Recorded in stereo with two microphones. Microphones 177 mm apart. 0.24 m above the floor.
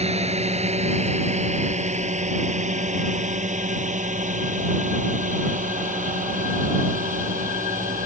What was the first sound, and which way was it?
A drone, 35° right (ahead or behind).